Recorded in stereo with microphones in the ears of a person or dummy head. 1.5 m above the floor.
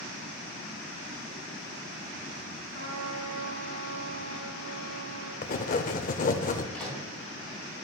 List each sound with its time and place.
2.7 s a trumpet: 75° right (ahead or behind), 3 m
5.4 s writing: 35° left (ahead or behind), 0.7 m
6.7 s a microwave: centre (ahead or behind), 4 m